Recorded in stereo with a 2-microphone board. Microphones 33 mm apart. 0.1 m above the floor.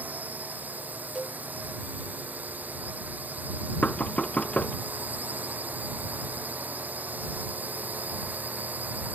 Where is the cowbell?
10° right (ahead or behind).